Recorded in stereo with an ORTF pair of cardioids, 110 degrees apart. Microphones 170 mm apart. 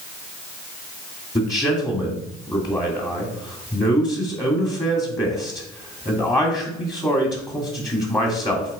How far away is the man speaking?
About 2.5 m.